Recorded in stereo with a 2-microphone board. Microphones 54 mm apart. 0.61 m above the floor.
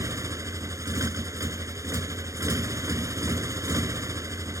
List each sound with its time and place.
0.0 s a motorcycle: 90° right